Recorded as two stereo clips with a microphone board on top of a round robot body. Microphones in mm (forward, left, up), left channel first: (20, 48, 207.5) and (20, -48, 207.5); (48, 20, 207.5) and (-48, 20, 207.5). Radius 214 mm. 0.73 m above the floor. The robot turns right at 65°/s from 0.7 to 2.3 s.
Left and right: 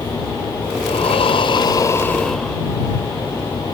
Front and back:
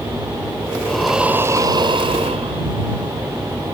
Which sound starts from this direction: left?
Breathing, at 0.8 s.